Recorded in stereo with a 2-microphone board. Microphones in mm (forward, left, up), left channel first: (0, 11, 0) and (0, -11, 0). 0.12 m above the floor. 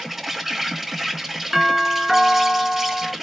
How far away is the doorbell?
About 1.8 m.